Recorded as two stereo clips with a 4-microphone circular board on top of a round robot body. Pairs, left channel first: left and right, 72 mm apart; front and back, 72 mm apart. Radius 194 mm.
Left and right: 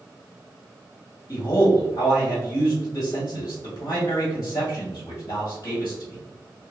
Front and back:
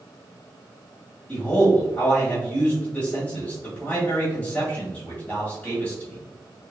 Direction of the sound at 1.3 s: 60° left.